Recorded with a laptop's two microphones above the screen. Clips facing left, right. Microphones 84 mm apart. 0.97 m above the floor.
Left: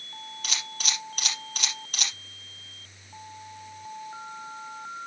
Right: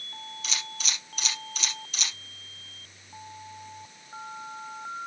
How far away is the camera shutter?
About 4.5 m.